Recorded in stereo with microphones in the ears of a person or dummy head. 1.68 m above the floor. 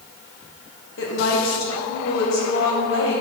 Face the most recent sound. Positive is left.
turn(degrees=65)  # may be behind; listen again after turning